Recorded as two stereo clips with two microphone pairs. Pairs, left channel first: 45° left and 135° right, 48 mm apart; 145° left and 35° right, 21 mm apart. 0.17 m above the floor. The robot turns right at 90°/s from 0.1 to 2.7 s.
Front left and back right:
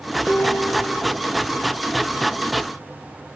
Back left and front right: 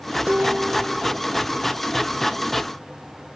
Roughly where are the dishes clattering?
Ahead right.